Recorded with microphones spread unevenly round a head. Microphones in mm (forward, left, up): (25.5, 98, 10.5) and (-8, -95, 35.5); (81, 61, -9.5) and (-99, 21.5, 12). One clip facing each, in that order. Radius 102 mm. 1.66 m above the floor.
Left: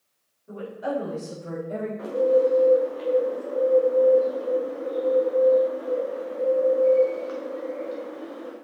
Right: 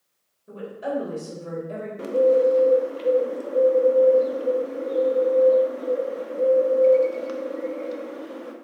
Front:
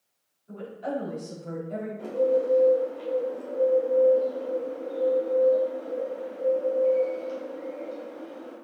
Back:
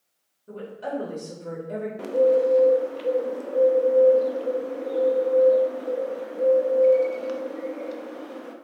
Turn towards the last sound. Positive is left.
turn(degrees=-155)